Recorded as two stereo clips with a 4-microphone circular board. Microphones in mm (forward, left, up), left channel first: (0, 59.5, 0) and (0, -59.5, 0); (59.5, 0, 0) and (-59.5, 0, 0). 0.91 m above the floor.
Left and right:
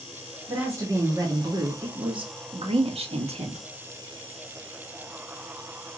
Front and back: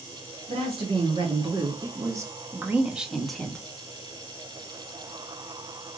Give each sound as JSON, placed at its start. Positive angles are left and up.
{"t": 0.5, "sound": "a woman speaking", "azimuth_deg": -155, "distance_m": 1.9}